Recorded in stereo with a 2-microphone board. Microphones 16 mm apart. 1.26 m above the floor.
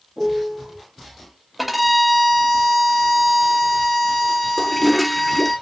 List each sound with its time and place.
0.2 s a piano: 25° right (ahead or behind), 1.6 m
1.6 s a violin: 5° right (ahead or behind), 1.0 m
4.6 s a toilet flushing: 5° left (ahead or behind), 0.6 m